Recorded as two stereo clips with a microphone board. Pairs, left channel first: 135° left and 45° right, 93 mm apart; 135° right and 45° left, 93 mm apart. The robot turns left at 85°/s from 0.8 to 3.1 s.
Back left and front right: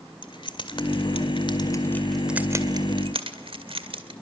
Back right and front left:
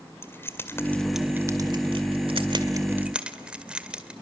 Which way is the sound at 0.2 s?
160° left.